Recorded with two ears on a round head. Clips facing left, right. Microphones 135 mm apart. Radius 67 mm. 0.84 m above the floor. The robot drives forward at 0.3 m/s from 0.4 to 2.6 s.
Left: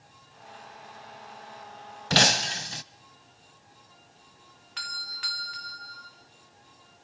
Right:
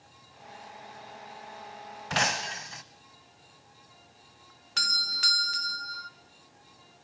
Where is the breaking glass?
40° left (ahead or behind), 0.8 m.